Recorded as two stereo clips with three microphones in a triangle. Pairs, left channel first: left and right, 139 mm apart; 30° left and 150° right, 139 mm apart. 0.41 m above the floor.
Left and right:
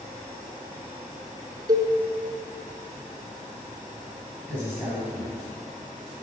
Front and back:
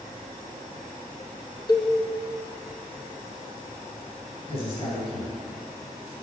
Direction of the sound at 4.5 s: 15° right.